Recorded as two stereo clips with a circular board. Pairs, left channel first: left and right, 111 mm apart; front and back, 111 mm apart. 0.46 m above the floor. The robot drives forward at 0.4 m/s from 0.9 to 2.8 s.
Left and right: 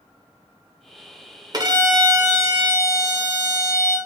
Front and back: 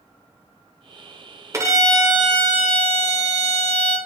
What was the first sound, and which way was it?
A violin, 125° right.